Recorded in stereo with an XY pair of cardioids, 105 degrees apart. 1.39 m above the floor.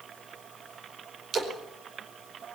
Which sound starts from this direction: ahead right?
A splash, at 1.3 s.